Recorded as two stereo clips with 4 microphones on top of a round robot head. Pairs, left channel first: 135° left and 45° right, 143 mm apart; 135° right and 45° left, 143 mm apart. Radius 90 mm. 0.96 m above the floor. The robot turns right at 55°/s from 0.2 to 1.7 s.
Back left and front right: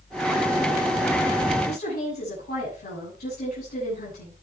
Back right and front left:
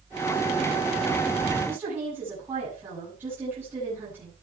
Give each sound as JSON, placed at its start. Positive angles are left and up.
{"t": 1.7, "sound": "a woman speaking", "azimuth_deg": 115, "distance_m": 7.5}